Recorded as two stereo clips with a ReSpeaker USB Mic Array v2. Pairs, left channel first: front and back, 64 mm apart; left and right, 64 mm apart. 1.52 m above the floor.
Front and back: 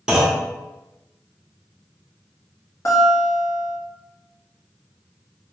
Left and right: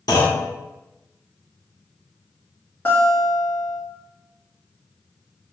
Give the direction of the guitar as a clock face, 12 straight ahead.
11 o'clock.